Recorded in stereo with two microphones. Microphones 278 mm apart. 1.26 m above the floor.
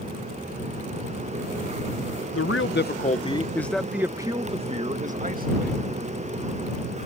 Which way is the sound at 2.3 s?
55° left (ahead or behind).